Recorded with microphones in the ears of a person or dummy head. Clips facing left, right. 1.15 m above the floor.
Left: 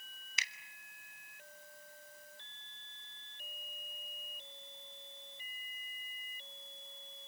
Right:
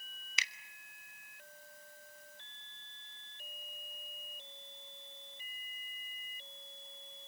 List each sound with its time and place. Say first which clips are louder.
0.4 s a finger snap: right 2 dB; 65° right (ahead or behind), 1.1 m